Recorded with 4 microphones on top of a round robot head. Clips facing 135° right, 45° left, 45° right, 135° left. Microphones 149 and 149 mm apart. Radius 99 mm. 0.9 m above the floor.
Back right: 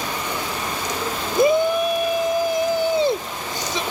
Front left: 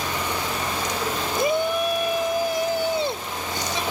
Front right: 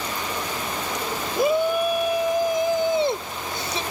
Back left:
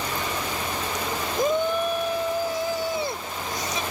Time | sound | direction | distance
1.4 | a shout | 130° right | ?